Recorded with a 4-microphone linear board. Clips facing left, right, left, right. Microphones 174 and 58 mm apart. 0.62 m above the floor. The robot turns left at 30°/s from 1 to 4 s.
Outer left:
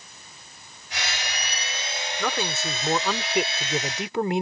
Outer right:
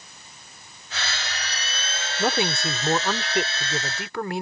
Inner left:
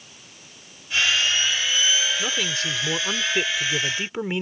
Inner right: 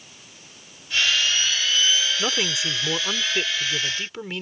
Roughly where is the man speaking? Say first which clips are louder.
Outer right 5 dB, inner right 1 dB; behind right.